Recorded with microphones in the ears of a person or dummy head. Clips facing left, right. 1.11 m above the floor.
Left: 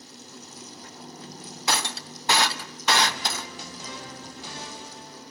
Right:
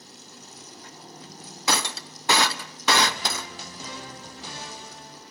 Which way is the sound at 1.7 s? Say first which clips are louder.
Right 2 dB; 70° right (ahead or behind).